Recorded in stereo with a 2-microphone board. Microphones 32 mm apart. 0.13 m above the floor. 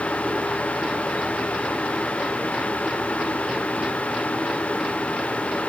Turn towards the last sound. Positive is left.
No sound to turn to.